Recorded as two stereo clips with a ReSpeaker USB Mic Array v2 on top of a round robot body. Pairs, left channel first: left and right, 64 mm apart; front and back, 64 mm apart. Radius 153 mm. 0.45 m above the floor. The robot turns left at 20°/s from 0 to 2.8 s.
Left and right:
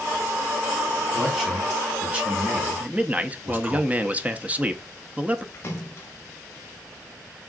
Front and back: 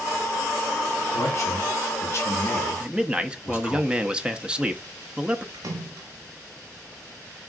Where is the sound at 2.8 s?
125° right, 0.7 m.